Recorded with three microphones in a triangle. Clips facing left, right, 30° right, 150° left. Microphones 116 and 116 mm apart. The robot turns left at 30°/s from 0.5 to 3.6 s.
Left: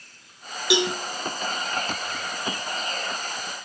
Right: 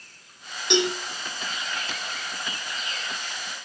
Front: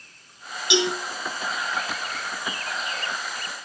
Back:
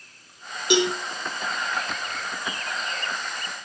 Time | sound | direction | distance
0.7 | a cowbell | 170° left | 2 m